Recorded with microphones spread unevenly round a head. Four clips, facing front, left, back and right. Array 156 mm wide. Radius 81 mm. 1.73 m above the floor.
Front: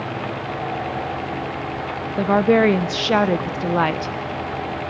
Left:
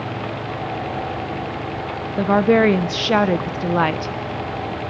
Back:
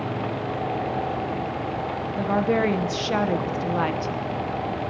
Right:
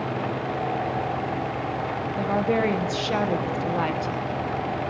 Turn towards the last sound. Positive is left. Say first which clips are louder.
# left 9 dB, front 7 dB
turn(degrees=35)